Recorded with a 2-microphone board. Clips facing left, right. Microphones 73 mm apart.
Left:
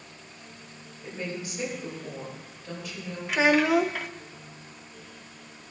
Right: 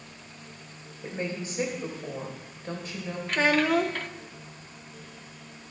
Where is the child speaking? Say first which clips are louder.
Left 2 dB; 10° left (ahead or behind), 0.9 m.